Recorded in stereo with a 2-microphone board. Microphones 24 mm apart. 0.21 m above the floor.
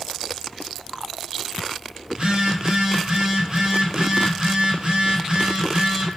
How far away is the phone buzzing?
About 1.0 m.